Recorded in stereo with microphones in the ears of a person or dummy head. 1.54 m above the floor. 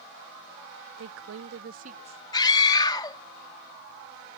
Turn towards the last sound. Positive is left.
turn(degrees=15)  # may be behind; listen again after turning